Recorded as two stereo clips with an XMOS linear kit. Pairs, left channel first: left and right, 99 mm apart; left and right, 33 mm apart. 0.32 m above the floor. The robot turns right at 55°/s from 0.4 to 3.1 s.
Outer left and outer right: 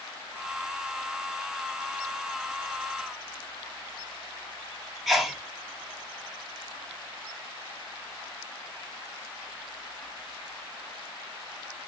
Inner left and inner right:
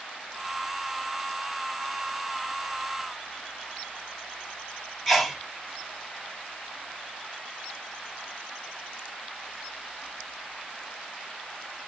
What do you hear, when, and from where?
5.1 s a sneeze: centre (ahead or behind), 0.8 m